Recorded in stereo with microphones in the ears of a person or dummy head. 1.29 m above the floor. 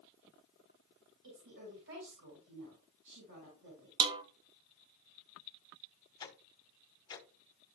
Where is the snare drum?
25° right (ahead or behind), 0.7 m.